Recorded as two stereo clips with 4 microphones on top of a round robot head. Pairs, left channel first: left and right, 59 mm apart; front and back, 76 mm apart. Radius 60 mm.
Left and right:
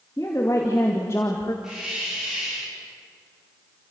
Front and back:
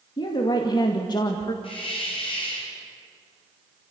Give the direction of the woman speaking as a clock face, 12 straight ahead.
11 o'clock.